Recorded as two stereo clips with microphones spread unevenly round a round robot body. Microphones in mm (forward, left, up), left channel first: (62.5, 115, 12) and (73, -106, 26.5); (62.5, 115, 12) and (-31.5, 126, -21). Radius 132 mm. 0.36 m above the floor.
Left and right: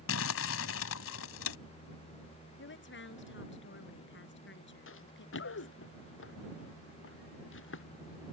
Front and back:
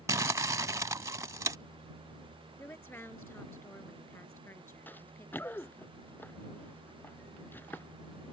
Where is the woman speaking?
60° left.